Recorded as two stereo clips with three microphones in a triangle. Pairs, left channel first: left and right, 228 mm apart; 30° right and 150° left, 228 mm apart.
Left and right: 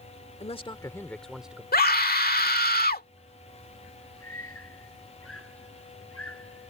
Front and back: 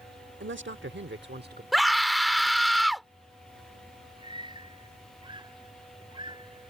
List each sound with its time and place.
0.4 s a man speaking: 145° left; by 1.6 s 170° right
1.7 s a scream: 60° left
4.2 s a scream: 80° left